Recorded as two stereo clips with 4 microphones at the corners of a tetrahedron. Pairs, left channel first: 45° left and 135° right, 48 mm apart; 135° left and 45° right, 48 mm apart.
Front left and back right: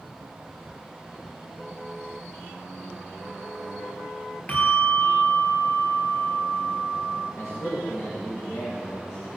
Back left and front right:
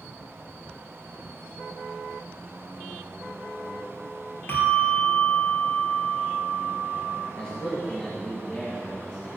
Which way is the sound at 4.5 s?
100° left.